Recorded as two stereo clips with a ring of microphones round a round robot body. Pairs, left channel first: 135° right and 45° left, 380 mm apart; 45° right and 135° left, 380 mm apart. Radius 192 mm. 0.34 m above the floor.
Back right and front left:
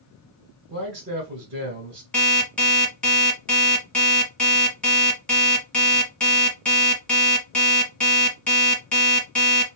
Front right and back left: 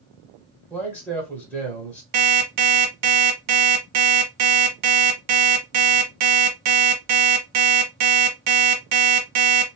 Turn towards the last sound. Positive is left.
turn(degrees=140)